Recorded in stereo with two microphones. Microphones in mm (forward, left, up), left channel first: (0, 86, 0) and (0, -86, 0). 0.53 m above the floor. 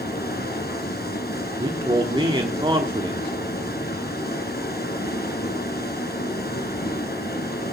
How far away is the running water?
About 2.5 m.